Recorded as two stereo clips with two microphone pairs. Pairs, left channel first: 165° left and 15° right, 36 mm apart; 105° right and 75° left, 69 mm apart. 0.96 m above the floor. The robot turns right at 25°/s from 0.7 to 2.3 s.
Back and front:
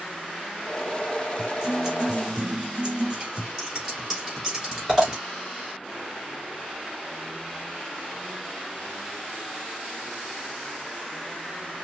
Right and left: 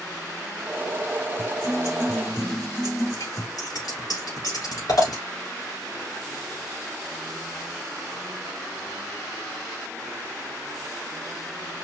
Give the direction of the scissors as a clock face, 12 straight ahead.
3 o'clock.